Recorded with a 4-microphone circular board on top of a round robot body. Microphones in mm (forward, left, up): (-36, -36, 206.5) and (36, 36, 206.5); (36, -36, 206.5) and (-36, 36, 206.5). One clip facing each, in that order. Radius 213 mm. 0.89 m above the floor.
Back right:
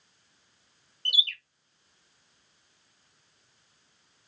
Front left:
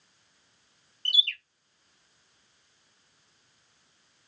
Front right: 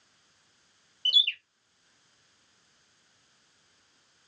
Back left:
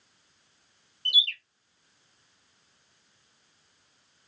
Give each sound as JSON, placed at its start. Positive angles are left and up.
{"t": 1.1, "sound": "a bird", "azimuth_deg": -60, "distance_m": 1.6}